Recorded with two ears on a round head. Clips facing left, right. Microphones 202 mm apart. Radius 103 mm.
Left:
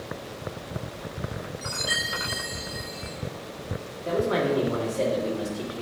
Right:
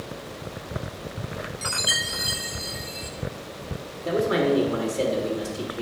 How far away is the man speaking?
About 1.8 m.